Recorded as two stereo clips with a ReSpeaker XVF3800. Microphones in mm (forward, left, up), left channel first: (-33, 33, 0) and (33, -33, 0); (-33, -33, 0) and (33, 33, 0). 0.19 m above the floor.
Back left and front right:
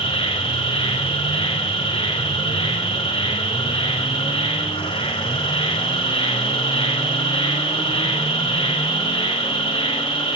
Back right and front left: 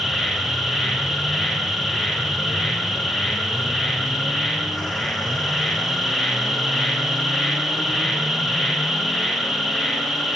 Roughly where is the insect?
Behind left.